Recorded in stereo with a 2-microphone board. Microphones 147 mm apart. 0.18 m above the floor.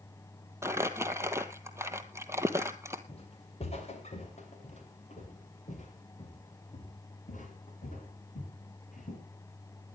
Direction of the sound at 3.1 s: 45° left (ahead or behind).